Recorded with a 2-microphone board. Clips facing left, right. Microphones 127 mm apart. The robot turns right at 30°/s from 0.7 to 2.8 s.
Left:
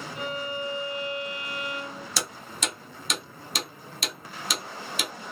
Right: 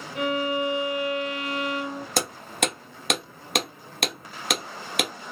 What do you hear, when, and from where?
0.1 s a violin: 105° right, 0.7 m; by 2.1 s 65° right, 0.7 m
2.2 s hammering: 50° right (ahead or behind), 0.7 m; by 5.1 s 60° right (ahead or behind), 0.7 m